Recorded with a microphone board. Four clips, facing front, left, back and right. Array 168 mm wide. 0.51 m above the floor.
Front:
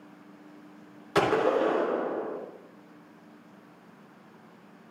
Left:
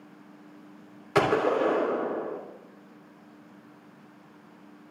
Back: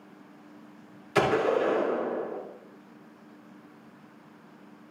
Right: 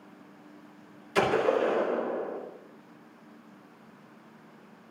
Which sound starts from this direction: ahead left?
A gunshot, at 1.1 s.